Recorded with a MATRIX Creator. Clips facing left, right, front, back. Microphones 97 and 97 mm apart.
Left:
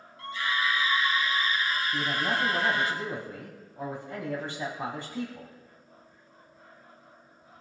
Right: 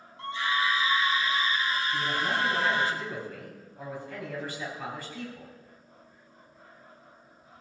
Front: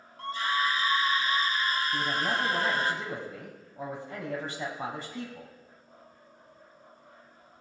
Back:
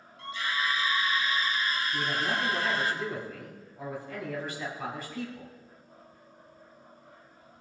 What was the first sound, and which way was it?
A scream, 35° right.